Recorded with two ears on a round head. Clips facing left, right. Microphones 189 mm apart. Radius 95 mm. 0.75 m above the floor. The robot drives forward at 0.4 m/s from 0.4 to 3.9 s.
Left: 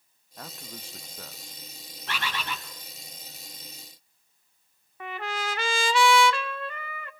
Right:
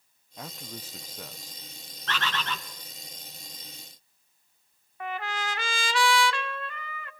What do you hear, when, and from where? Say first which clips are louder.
0.4 s a man speaking: right 2 dB; 5° right (ahead or behind), 0.6 m
2.1 s a bird: right 1 dB; 10° left (ahead or behind), 1.8 m
5.0 s a trumpet: even; 85° left, 1.0 m